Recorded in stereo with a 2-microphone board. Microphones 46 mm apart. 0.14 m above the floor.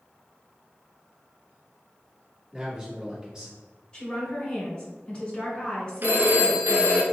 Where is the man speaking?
20° right (ahead or behind), 2.0 m.